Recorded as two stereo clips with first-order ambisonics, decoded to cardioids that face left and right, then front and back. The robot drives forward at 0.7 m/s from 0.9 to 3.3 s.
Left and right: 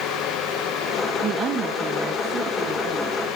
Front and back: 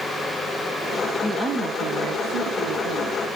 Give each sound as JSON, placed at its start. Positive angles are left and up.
{"t": 1.2, "sound": "a woman speaking", "azimuth_deg": -90, "distance_m": 0.6}